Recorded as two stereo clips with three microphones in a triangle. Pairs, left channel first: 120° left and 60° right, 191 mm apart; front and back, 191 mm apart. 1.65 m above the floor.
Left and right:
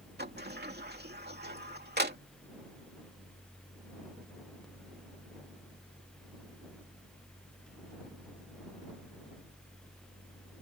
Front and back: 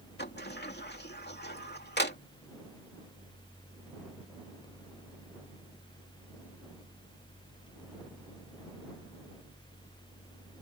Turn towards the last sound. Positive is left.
turn(degrees=-30)